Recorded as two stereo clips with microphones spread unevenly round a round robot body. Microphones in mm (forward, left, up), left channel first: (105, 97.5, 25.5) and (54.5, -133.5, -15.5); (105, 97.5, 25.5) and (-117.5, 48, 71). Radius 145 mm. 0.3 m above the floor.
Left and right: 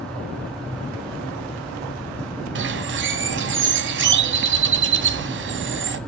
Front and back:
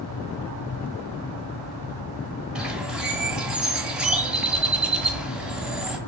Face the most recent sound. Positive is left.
turn(degrees=-75)